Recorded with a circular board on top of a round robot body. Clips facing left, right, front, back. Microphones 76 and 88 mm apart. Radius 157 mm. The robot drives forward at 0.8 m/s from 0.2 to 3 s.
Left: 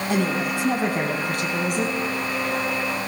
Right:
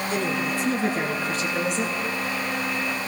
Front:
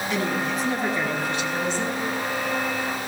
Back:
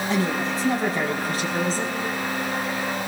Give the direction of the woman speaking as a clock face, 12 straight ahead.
8 o'clock.